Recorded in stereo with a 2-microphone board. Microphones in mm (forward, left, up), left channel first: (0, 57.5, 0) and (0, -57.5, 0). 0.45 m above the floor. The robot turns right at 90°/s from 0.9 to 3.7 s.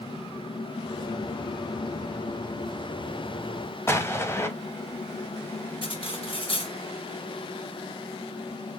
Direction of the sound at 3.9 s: 20° left (ahead or behind).